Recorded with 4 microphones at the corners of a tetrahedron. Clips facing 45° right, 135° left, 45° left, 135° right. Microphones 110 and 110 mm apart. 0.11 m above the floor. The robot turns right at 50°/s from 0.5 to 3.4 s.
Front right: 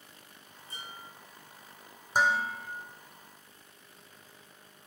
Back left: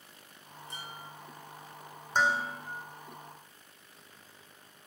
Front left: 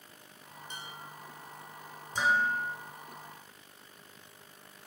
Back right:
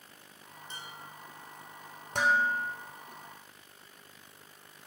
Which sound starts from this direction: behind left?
Dishes clattering, at 0.7 s.